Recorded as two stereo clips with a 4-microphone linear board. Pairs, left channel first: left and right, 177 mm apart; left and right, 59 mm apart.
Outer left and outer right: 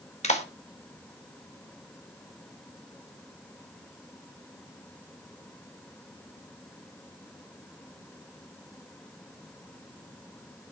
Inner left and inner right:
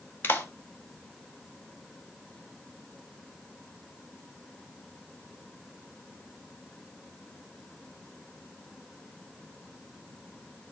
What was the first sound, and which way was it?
A clap, 40° left (ahead or behind).